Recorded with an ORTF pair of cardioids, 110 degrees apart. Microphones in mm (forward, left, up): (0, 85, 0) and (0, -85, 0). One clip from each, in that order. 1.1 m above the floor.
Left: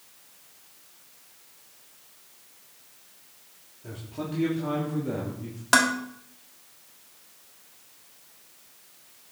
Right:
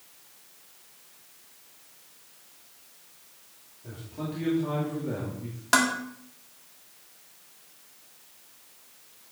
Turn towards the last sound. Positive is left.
turn(degrees=10)